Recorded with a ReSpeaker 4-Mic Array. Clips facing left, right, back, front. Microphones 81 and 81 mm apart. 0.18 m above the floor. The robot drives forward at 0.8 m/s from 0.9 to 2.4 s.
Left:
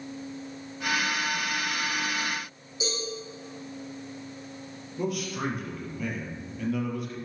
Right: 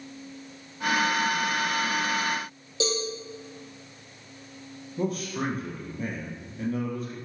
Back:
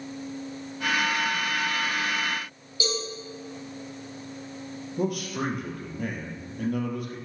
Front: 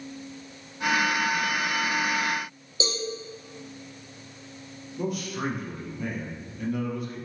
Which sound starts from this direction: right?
A cowbell, at 2.8 s.